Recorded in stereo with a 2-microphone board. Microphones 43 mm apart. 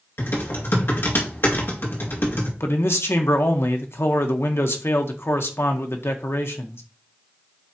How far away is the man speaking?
About 1.1 m.